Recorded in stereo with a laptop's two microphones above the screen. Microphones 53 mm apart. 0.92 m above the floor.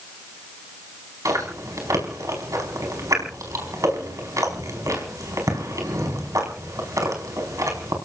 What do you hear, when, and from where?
1.2 s chewing: 70° right (ahead or behind), 5 m